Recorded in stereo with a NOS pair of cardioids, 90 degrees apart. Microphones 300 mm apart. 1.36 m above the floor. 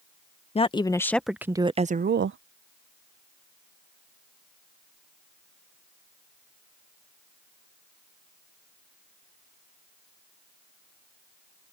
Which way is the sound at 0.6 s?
20° left.